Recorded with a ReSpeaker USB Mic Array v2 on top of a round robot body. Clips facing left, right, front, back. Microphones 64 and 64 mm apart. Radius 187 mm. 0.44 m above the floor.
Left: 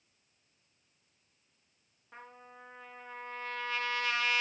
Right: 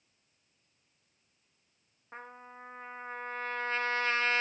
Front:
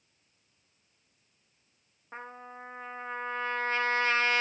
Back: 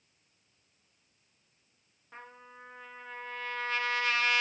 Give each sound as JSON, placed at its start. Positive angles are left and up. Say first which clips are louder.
{"t": 2.1, "sound": "a trumpet", "louder": "right 4 dB, front 6 dB", "azimuth_deg": -45, "distance_m": 0.5}